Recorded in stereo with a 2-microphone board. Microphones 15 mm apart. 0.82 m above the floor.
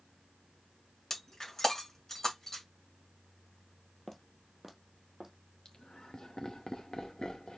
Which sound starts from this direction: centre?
Footsteps, at 4.1 s.